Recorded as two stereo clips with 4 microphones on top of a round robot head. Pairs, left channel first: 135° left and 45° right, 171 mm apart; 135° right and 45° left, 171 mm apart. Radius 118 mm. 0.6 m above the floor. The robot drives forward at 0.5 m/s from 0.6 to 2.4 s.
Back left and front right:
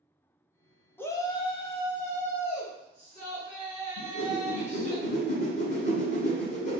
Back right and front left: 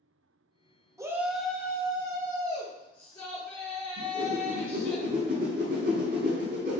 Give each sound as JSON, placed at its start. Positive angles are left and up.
{"t": 1.0, "sound": "a shout", "azimuth_deg": 80, "distance_m": 0.5}
{"t": 4.0, "sound": "a whoosh", "azimuth_deg": 85, "distance_m": 0.9}